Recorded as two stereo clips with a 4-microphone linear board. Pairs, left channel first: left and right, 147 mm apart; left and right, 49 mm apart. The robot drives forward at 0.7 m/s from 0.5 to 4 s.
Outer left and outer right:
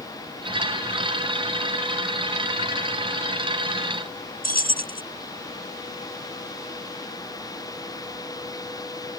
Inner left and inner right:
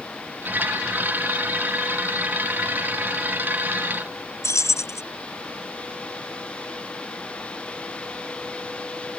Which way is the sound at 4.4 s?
75° left (ahead or behind).